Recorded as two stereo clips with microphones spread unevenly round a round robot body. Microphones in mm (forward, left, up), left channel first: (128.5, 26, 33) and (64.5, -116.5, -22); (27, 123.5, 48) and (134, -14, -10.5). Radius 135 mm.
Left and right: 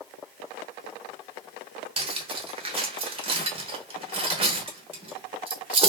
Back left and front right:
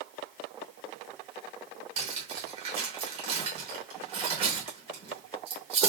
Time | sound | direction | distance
2.0 | cutlery clinking | 90° right | 0.7 m